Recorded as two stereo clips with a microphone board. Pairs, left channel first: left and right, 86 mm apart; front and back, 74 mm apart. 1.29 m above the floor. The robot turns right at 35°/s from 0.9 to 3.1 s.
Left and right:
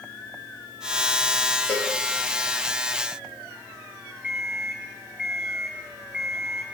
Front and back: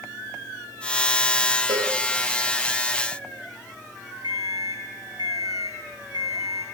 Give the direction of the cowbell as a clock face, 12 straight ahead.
7 o'clock.